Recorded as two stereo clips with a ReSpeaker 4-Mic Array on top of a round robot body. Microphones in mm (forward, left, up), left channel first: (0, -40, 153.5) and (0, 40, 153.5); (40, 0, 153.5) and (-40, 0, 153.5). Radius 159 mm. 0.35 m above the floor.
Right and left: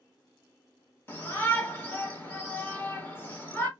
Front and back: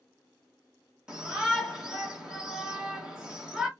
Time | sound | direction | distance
1.1 | a shout | 110° right | 1.6 m